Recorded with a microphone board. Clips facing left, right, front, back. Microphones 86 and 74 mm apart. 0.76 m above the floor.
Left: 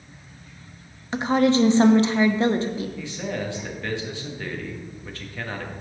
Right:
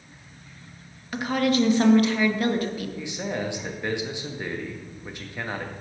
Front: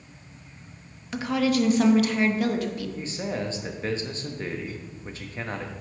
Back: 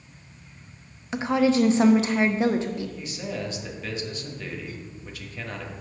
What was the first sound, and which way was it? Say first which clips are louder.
A woman speaking: left 4 dB, back 3 dB; 135° left.